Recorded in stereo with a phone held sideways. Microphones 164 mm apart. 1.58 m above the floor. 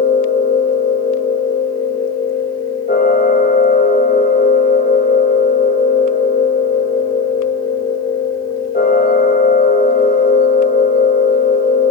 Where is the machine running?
65° left (ahead or behind), 3 m.